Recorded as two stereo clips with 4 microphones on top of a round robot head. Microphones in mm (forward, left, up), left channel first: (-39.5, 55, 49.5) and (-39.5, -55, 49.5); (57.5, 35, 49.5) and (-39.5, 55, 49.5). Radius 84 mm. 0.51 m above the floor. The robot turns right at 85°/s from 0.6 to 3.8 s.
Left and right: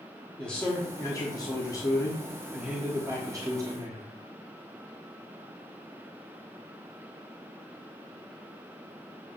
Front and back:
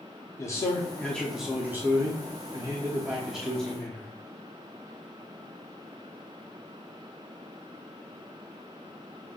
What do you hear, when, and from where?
0.4 s a man speaking: 15° left, 0.9 m; by 4.1 s 70° right, 0.9 m